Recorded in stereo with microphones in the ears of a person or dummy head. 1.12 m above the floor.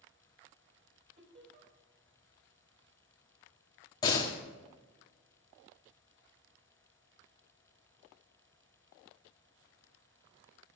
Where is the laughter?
45° right (ahead or behind), 6 m.